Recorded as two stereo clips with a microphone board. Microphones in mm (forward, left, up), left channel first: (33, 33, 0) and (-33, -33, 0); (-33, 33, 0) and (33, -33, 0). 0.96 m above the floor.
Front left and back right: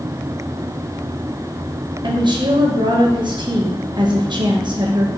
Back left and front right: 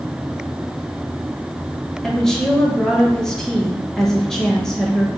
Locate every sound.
2.0 s a woman speaking: 140° right, 1.0 m